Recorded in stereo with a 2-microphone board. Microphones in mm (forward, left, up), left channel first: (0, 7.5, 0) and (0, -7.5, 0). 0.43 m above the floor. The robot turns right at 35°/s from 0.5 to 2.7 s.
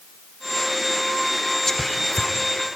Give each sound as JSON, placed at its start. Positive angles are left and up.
{"t": 1.7, "sound": "whispering", "side_deg": 25, "distance_m": 1.0}